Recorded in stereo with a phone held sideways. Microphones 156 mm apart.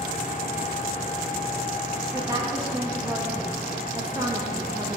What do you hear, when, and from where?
0.0 s a fan: 60° left (ahead or behind), 2 m
2.1 s a woman speaking: 25° right (ahead or behind), 1.2 m